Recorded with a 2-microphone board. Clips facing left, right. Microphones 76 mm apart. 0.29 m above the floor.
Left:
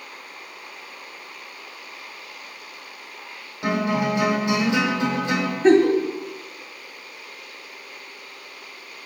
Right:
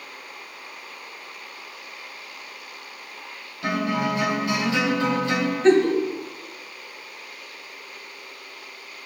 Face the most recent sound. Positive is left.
turn(degrees=10)  # may be behind; listen again after turning